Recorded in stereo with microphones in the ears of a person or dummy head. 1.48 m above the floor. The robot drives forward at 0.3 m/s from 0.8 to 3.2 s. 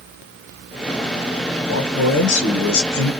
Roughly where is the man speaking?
Left.